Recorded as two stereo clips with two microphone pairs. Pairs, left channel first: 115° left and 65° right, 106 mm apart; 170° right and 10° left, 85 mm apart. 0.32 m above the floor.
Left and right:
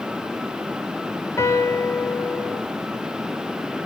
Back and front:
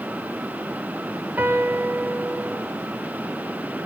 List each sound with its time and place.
1.4 s a piano: 70° left, 0.8 m